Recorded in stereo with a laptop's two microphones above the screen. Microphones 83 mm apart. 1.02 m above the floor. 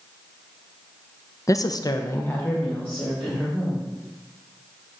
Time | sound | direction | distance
1.5 | a woman speaking | 40° left (ahead or behind) | 0.6 m